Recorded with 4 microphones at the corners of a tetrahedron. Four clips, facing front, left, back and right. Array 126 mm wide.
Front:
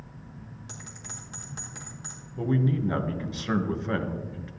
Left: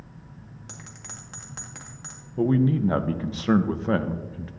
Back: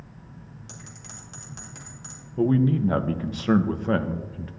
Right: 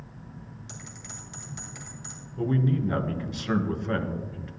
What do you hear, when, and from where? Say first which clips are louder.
0.7 s a bell: even, even; 80° left, 2 m
2.4 s a man speaking: left 5 dB, back 5 dB; 130° left, 0.8 m